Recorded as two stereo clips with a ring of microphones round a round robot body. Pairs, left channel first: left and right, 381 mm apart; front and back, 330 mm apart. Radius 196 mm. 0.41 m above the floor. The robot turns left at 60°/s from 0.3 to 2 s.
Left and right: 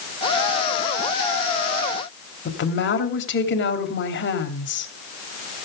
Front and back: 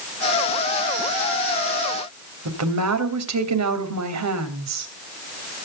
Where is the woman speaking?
150° left, 3 m.